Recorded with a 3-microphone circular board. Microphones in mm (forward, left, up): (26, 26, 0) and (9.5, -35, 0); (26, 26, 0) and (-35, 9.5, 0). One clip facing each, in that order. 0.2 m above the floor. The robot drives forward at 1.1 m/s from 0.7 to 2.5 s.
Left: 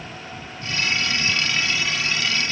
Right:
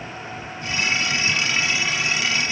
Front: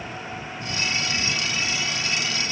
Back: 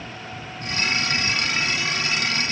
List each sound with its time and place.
Only background noise.